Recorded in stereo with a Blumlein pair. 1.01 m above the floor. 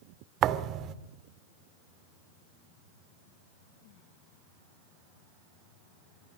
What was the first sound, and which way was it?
A thud, 35° right.